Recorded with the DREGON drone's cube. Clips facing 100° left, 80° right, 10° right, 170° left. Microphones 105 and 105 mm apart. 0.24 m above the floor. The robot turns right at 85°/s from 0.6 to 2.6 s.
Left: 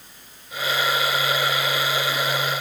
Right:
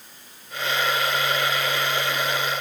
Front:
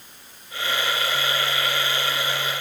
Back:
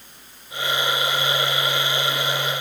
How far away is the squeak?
I don't hear a squeak.